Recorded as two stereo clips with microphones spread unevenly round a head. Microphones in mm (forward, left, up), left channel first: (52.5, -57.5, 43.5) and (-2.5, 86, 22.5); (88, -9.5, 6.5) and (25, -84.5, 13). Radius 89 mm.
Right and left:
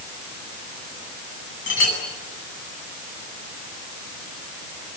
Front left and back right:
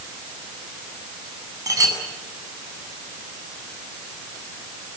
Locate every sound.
1.7 s a clink: 75° right, 8 m